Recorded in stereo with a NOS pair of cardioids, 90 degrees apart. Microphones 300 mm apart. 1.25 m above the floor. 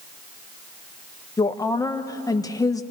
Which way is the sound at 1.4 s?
15° left.